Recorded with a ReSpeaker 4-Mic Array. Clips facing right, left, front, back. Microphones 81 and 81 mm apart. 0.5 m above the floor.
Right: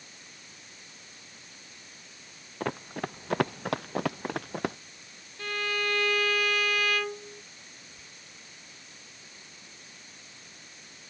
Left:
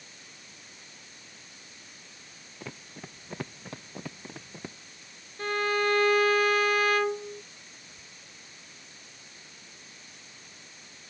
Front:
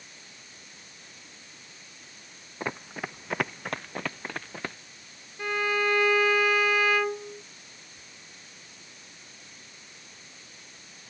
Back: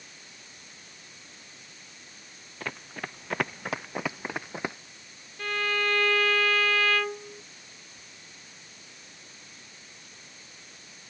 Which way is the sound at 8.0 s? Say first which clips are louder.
Even, even; 10° left.